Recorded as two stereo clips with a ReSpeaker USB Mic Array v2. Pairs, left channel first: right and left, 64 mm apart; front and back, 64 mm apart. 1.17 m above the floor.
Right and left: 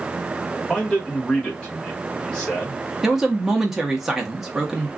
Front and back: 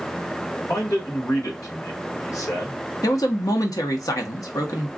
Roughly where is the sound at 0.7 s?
Ahead.